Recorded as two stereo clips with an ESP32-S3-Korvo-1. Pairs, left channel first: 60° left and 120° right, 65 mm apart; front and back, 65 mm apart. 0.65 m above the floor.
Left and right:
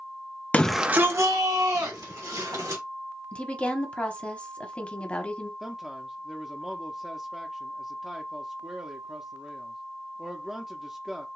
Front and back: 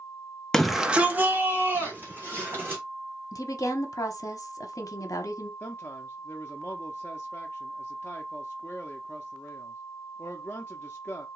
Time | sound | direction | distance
0.5 | a shout | 70° left | 0.5 m
3.3 | a woman speaking | 10° right | 0.9 m
5.6 | a man speaking | 45° right | 0.6 m